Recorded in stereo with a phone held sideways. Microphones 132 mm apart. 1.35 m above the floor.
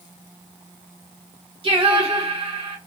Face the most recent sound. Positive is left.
turn(degrees=-40)  # may be behind; listen again after turning